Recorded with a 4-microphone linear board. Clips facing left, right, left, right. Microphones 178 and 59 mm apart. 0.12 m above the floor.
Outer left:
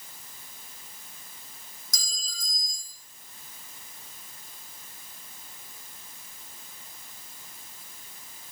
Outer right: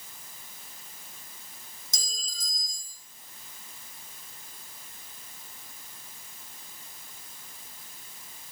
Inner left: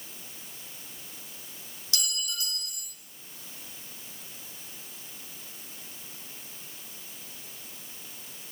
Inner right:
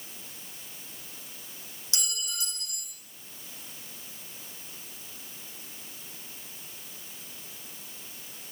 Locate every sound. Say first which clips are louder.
1.9 s a clink: outer right 2 dB, inner left 2 dB; 25° right (ahead or behind), 4 m